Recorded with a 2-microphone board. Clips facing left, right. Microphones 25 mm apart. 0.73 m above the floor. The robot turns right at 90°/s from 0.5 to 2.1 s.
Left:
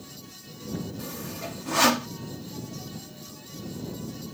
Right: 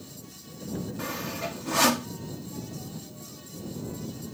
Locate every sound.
1.0 s sawing: 45° right (ahead or behind); by 2.1 s 25° left (ahead or behind)